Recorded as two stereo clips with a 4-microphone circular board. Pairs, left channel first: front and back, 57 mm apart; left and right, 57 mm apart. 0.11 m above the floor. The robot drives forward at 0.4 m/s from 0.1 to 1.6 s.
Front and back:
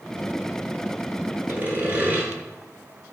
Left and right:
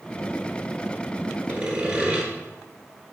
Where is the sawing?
145° right, 1.2 m; by 2.3 s 150° right, 1.2 m.